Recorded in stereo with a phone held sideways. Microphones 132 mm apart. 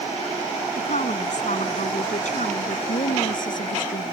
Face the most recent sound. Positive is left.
turn(degrees=85)